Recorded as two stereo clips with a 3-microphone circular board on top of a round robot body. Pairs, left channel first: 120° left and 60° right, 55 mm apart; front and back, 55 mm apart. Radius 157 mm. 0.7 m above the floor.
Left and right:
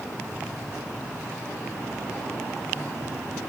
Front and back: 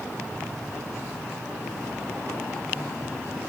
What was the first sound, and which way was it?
Only background noise.